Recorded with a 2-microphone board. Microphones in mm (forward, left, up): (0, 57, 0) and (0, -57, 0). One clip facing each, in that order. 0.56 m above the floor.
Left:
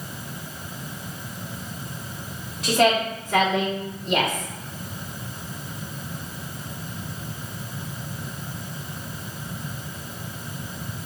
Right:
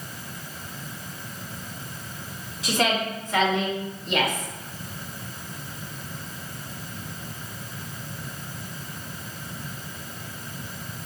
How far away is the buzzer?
I don't hear a buzzer.